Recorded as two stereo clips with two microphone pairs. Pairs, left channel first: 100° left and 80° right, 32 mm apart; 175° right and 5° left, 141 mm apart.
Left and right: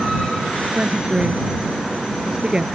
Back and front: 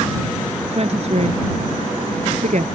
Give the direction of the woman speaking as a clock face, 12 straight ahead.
1 o'clock.